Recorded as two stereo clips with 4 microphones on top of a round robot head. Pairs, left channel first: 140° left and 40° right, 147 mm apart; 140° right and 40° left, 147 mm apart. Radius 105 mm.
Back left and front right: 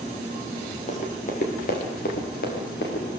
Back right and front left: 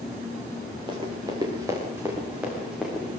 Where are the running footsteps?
100° left, 6.5 m; by 3.1 s 130° left, 6.5 m.